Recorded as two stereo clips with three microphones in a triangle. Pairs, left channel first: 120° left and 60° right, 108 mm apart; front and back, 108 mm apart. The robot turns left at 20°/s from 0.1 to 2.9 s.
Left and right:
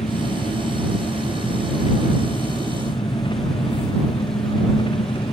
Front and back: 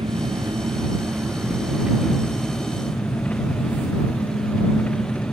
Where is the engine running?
135° left; by 5.3 s 80° left.